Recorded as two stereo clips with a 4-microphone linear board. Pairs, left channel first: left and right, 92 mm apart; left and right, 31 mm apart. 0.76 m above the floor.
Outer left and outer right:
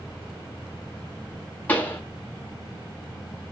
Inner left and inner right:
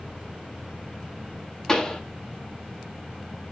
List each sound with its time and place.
1.7 s a pop: 20° left (ahead or behind), 1.4 m